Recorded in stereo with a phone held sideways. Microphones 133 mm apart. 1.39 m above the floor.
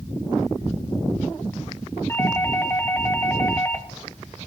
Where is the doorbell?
20° left (ahead or behind), 0.8 m.